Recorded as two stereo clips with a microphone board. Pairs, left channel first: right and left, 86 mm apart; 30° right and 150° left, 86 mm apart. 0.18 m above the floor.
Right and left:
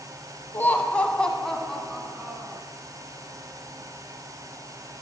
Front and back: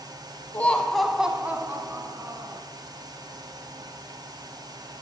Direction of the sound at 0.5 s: 70° right.